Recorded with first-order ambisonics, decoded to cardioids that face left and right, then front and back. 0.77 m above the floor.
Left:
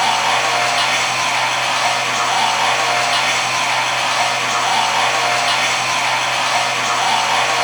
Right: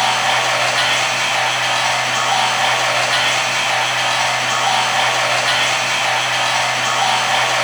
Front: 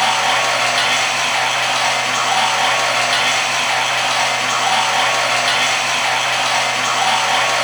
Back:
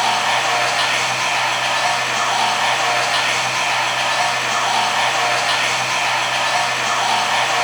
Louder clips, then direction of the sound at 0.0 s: Even, front 2 dB; 25° right.